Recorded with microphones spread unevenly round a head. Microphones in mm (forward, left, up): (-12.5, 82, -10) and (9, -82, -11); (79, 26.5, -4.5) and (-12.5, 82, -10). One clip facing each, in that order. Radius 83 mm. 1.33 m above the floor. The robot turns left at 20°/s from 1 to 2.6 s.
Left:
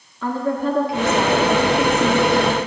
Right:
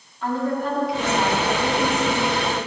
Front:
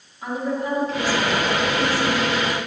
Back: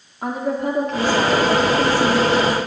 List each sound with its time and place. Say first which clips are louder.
0.2 s a woman speaking: left 2 dB, back 3 dB; 115° left, 1.3 m; by 2.7 s 80° left, 1.3 m